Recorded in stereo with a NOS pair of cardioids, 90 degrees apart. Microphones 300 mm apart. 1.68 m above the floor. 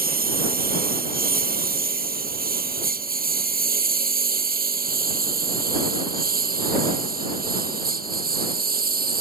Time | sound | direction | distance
0.0 | a lawn mower | 30° right | ?